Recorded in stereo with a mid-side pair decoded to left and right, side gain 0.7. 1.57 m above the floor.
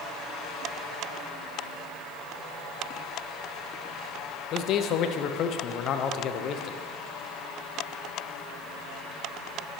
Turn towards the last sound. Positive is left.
turn(degrees=50)